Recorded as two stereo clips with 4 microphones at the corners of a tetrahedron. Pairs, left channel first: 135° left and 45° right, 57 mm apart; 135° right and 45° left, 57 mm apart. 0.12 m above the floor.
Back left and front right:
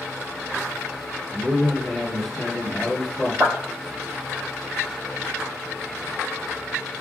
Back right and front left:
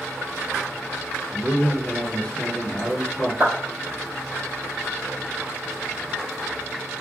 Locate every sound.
1.3 s a man speaking: 140° right, 1.3 m
3.4 s a clap: 5° left, 1.5 m